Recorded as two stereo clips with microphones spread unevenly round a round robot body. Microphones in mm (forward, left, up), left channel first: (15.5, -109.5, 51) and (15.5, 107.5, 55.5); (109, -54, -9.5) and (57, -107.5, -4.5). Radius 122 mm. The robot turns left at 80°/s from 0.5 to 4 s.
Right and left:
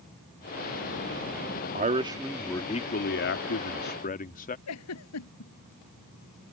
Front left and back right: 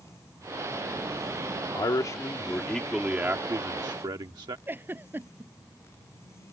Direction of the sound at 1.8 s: 45° left.